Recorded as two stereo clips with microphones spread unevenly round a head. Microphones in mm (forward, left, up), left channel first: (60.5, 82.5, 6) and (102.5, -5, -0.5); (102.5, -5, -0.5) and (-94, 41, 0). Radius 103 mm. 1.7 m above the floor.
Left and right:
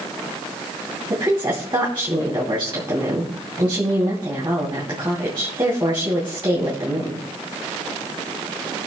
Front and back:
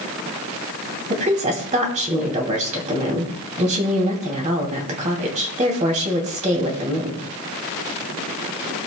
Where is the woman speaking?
135° right, 2.5 m.